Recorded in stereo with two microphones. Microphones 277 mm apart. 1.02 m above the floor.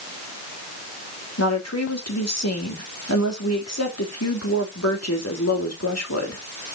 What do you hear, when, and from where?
1.4 s a woman speaking: 65° left (ahead or behind), 2.5 m